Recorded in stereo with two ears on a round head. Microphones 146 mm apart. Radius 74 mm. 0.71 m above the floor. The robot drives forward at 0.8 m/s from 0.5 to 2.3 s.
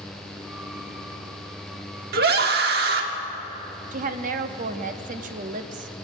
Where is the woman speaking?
45° right (ahead or behind), 0.9 m.